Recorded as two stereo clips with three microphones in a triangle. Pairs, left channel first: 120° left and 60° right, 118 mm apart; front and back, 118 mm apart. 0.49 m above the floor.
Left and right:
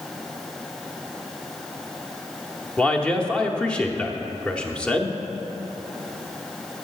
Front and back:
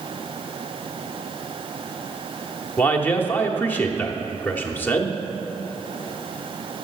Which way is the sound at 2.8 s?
50° left.